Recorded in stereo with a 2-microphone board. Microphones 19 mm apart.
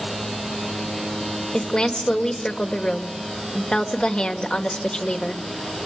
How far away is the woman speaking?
About 2 m.